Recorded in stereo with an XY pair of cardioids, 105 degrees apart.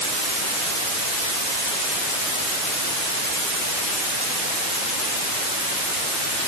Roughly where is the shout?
I don't hear a shout.